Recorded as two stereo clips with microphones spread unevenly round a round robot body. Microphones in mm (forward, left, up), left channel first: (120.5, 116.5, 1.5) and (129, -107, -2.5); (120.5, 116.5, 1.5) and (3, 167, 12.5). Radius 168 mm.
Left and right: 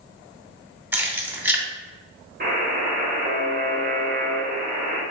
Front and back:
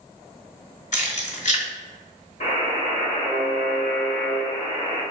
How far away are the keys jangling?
About 1.9 m.